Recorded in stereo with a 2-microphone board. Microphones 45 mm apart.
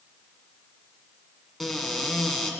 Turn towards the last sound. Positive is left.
turn(degrees=0)  # may be behind; listen again after turning